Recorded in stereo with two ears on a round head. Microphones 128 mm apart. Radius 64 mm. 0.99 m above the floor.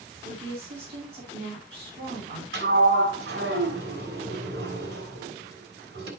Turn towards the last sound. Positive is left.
turn(degrees=-90)